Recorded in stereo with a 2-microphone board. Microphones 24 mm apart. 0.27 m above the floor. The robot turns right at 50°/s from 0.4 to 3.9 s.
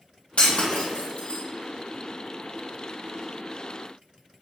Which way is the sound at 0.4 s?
70° left (ahead or behind).